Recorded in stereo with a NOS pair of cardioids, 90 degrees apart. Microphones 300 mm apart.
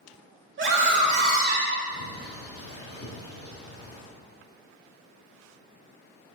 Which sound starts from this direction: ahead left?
A bird, at 1.9 s.